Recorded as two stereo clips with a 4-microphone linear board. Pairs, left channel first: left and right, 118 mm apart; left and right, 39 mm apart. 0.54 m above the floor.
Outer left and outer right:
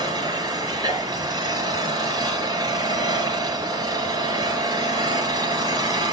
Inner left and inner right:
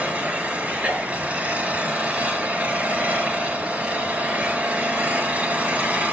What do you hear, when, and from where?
0.0 s an engine running: 30° right (ahead or behind), 5.5 m